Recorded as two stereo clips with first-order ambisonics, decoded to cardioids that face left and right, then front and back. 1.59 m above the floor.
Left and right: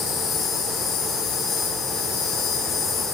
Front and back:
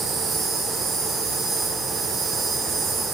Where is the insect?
125° left, 3.5 m.